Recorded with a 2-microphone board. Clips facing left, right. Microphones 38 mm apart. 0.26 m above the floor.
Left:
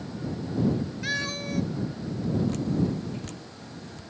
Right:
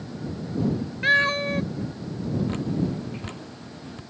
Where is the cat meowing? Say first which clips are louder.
Right 14 dB; 40° right (ahead or behind).